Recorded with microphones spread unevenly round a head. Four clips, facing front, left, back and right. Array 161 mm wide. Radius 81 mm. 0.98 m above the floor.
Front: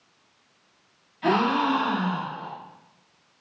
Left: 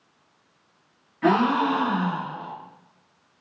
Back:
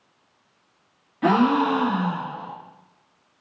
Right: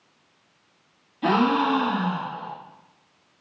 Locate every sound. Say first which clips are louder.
1.2 s a gasp: even, back 3 dB; 175° left, 2 m